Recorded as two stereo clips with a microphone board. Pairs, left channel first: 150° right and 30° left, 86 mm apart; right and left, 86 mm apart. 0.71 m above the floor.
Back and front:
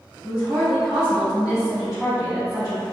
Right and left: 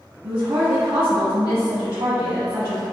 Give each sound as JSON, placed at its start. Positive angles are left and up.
{"t": 0.2, "sound": "a woman speaking", "azimuth_deg": 110, "distance_m": 1.2}